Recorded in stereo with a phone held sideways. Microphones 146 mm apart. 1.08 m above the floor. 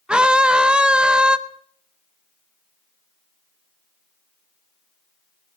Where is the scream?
5° right (ahead or behind), 0.7 m.